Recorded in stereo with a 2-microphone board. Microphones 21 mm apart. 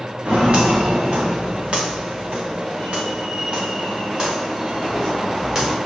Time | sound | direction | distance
0.2 | footsteps | 75° right (ahead or behind) | 3 m